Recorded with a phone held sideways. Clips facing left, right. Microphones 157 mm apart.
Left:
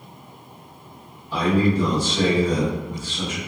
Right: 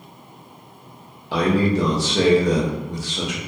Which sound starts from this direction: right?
A man speaking, at 1.3 s.